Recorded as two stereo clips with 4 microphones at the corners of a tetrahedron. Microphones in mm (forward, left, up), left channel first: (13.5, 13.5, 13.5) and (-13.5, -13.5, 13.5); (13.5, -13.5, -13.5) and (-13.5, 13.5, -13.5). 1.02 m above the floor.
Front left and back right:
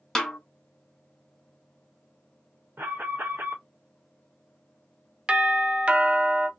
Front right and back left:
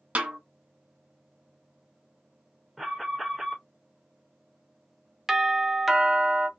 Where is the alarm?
140° right, 1.0 m.